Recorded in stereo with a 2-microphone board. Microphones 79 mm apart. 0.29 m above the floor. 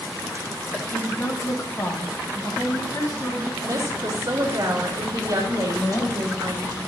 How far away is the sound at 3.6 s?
About 2.5 m.